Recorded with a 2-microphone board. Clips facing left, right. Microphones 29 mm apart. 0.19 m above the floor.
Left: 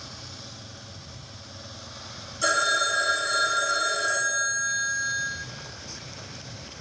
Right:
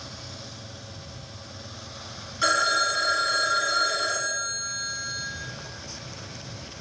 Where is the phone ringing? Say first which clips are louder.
Right 1 dB; 35° right (ahead or behind), 0.7 m.